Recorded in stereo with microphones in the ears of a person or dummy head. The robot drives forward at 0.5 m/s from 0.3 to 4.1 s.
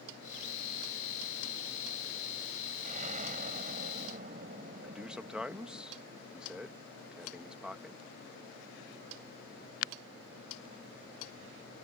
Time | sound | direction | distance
2.8 | an explosion | 50° right (ahead or behind) | ?
4.8 | a man speaking | 5° left (ahead or behind) | ?